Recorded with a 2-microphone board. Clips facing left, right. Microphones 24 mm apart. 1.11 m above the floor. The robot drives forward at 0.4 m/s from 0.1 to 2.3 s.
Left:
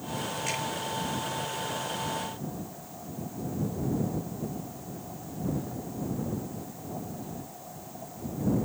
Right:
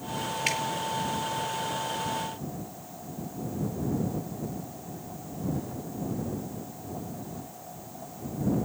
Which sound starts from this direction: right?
Dripping, at 0.5 s.